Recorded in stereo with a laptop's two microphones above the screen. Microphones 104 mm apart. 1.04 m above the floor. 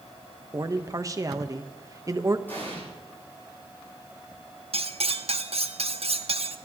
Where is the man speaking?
30° right (ahead or behind), 0.9 m.